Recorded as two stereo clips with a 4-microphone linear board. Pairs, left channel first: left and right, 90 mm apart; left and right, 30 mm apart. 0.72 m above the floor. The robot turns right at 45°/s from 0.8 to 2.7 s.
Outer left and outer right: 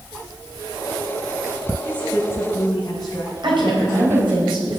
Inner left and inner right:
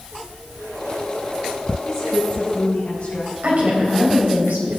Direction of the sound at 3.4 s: 70° right (ahead or behind).